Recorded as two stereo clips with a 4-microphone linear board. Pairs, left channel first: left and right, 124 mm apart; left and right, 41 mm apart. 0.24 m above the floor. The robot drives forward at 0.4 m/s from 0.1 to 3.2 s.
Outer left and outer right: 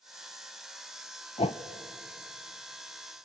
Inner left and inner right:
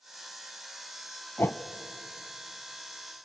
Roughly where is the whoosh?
Left.